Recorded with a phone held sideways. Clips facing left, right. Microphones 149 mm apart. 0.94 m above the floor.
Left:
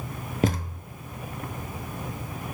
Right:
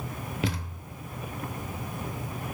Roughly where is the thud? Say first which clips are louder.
Left 7 dB; left.